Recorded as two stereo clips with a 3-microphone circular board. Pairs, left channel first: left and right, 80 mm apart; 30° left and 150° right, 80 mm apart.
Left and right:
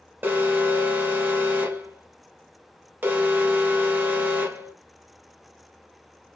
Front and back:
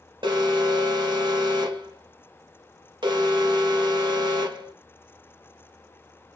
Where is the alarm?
155° right, 0.9 m.